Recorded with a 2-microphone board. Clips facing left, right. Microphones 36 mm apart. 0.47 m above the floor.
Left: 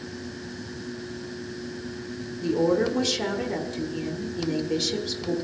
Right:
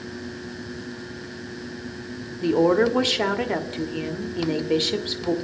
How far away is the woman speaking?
About 1.0 m.